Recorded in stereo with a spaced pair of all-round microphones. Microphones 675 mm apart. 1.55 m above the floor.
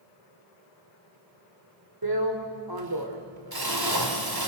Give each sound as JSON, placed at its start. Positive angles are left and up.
{"t": 2.0, "sound": "a drill", "side_deg": -30, "distance_m": 2.5}